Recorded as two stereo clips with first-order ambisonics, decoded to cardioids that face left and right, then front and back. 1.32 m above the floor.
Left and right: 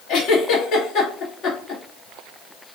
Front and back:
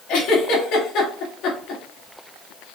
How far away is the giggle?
About 1.7 m.